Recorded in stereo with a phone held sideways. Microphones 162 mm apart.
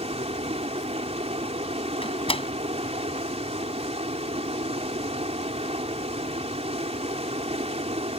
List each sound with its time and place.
0.0 s running water: 40° right (ahead or behind)
2.0 s a door slam: 35° left (ahead or behind)